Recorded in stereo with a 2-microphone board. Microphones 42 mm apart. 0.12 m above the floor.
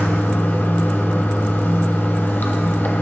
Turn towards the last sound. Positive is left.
turn(degrees=45)  # may be behind; listen again after turning